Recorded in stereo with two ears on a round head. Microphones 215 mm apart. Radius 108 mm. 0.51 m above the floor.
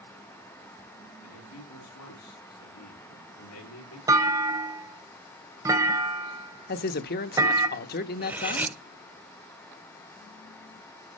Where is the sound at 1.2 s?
70° left (ahead or behind), 6 m; by 4.0 s 75° left (ahead or behind), 7.5 m.